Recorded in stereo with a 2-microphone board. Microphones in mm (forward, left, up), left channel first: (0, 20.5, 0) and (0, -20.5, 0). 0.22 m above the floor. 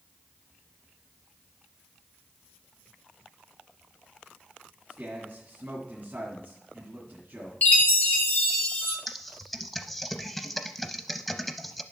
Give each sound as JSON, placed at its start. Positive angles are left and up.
{"t": 4.9, "sound": "a man speaking", "side_deg": -40, "distance_m": 2.0}
{"t": 7.6, "sound": "a chime", "side_deg": 45, "distance_m": 1.5}
{"t": 9.1, "sound": "typing on a keyboard", "side_deg": 5, "distance_m": 0.6}